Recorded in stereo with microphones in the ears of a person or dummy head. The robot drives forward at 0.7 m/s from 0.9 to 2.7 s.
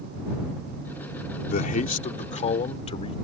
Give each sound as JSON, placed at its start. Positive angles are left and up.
{"t": 1.5, "sound": "a man speaking", "side_deg": 45}